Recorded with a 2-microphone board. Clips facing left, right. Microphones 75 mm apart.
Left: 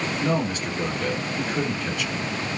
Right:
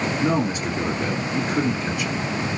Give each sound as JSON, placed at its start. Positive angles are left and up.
{"t": 0.2, "sound": "a man speaking", "side_deg": -20, "distance_m": 1.7}